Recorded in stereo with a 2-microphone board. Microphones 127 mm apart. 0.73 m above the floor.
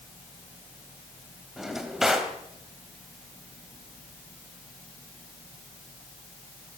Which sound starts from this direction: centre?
A drawer, at 1.6 s.